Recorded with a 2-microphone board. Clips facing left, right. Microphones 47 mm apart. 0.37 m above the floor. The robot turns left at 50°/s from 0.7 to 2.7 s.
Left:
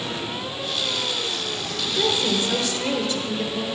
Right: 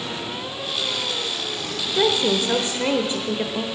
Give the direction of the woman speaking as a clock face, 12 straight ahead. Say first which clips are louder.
Right 3 dB; 3 o'clock.